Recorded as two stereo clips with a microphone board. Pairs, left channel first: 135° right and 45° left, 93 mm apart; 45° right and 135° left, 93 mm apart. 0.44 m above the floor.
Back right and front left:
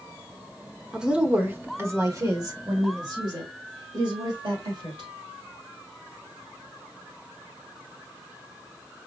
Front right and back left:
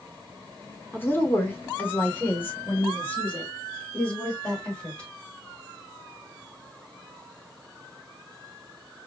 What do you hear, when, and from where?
0.9 s a woman speaking: 25° right, 1.2 m; by 5.1 s 30° left, 3 m